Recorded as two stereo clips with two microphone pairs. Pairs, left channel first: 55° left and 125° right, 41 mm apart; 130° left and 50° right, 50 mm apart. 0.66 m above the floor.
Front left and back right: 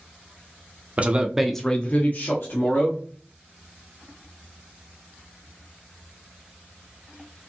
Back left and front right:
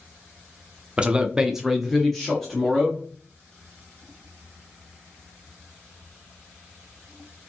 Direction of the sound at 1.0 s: 100° right.